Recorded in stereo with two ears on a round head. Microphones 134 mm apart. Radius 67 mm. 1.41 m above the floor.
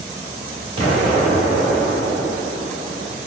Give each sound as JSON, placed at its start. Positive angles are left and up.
{"t": 0.8, "sound": "an explosion", "side_deg": -40, "distance_m": 1.8}